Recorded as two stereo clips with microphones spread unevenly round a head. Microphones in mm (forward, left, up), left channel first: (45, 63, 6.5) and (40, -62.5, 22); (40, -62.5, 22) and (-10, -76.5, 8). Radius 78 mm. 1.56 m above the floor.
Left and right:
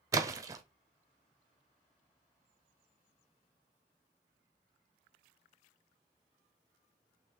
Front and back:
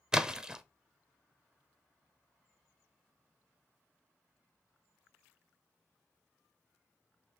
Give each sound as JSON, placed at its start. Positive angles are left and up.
{"t": 0.1, "sound": "a splash", "azimuth_deg": -75, "distance_m": 0.5}